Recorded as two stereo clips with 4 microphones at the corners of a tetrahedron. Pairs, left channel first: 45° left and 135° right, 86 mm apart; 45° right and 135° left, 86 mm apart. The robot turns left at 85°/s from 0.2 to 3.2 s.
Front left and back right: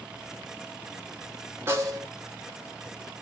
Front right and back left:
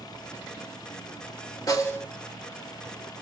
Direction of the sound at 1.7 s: 80° right.